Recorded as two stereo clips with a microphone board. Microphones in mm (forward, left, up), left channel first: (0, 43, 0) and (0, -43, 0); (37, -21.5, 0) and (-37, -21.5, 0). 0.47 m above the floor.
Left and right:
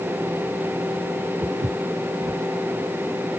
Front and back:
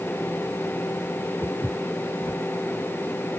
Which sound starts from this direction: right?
Footsteps, at 1.4 s.